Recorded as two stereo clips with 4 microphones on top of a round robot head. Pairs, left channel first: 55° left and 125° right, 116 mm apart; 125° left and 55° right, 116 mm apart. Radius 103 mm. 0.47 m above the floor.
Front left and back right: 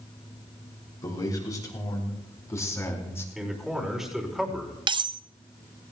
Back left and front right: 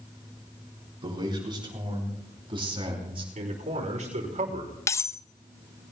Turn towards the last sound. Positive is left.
turn(degrees=-170)